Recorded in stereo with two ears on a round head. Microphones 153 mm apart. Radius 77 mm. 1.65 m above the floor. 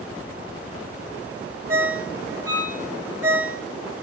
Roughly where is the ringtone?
Right.